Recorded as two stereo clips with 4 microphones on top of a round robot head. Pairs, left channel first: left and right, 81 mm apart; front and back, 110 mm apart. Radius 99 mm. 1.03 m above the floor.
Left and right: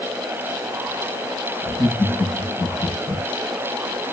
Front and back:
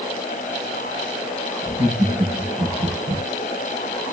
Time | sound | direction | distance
1.6 | laughter | 150° left | 6.5 m